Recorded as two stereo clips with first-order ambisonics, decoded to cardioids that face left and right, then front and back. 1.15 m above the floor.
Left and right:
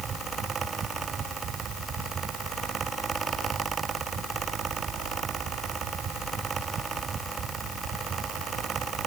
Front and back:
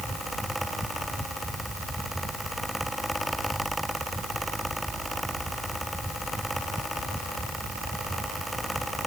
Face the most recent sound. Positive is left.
No sound to turn to.